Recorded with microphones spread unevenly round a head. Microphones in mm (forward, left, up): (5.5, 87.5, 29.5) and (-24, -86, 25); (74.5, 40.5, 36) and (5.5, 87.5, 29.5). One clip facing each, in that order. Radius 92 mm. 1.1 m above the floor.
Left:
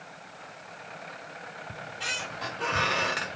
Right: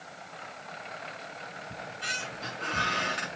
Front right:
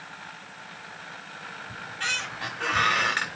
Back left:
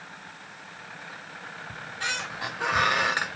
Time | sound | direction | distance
1.7 | a squeak | 75° left | 4 m